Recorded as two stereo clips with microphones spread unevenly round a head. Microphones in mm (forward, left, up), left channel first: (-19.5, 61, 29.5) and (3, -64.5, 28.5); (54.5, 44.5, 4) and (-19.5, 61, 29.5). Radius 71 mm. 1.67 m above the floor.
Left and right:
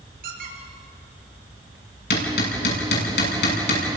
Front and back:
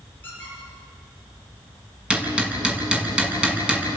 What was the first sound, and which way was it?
A squeak, 95° right.